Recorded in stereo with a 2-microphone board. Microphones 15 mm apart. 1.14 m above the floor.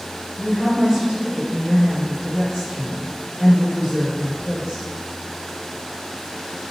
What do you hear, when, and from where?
0.4 s a woman speaking: 75° right (ahead or behind), 1.8 m